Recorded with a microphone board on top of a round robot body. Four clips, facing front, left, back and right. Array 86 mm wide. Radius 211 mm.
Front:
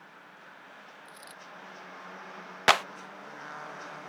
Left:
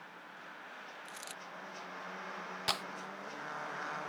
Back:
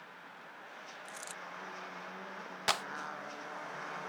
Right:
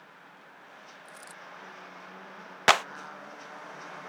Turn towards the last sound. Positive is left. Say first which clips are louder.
# right 17 dB, front 11 dB
turn(degrees=-55)